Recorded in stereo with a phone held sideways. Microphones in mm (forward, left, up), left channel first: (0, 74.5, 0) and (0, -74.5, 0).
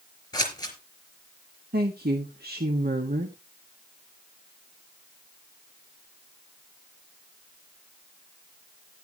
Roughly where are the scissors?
Left.